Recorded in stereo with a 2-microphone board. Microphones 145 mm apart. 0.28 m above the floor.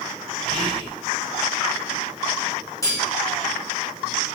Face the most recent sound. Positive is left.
turn(degrees=20)  # may be behind; listen again after turning